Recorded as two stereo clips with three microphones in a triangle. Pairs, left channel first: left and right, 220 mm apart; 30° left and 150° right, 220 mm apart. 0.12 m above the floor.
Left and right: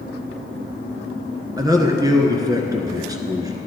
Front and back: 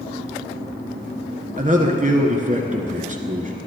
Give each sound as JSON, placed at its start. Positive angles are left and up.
{"t": 1.6, "sound": "a man speaking", "azimuth_deg": -150, "distance_m": 1.4}